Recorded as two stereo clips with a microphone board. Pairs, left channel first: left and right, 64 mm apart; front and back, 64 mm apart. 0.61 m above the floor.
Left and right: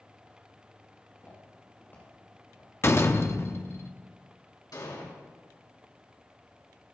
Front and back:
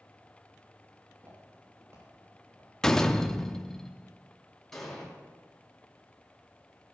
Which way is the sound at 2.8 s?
75° left.